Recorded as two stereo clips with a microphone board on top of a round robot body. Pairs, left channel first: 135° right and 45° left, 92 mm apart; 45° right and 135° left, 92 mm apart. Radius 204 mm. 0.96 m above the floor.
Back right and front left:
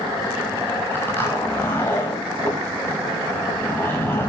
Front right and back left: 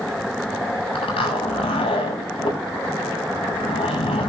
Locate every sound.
0.9 s a zipper: 70° right, 6 m